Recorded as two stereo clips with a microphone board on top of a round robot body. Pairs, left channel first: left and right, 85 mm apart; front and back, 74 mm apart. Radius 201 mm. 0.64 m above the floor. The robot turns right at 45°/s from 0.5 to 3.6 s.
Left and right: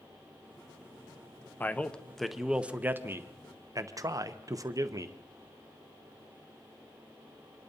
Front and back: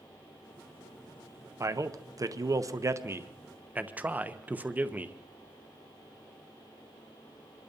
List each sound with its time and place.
1.6 s a man speaking: 150° left, 1.0 m; by 5.2 s 120° right, 1.0 m